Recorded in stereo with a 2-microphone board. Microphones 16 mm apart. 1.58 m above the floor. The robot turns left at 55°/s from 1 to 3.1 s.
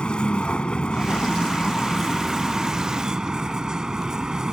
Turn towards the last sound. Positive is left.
turn(degrees=-45)